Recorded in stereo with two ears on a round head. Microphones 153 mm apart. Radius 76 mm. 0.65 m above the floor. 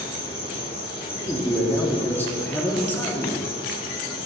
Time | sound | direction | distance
0.0 | an insect | 35° left (ahead or behind) | 3 m
1.1 | a man speaking | 10° left (ahead or behind) | 1.0 m